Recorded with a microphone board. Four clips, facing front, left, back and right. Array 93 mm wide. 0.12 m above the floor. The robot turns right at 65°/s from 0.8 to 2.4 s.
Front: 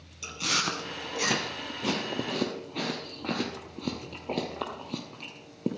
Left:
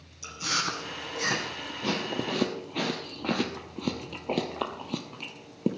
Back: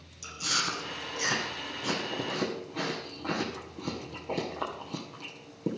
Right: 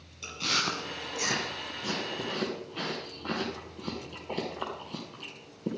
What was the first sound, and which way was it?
Chewing, 35° right.